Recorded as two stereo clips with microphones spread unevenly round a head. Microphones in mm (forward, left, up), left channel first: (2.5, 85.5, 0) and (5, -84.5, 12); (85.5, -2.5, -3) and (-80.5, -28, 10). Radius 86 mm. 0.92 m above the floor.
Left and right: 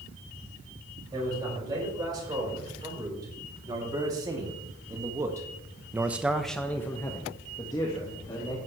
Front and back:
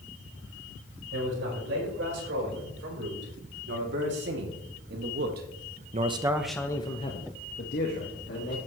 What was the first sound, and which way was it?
A man speaking, 160° right.